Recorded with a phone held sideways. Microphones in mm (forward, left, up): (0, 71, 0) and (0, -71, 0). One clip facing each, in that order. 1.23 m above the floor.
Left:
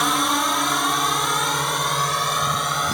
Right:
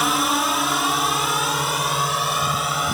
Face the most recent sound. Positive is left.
turn(degrees=-5)  # may be behind; listen again after turning